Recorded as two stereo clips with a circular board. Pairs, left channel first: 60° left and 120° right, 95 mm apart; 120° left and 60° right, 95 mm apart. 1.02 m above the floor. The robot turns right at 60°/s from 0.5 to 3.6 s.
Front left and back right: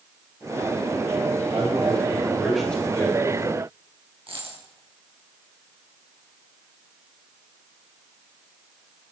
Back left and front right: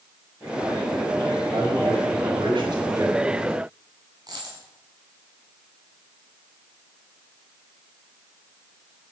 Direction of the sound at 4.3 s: 105° right.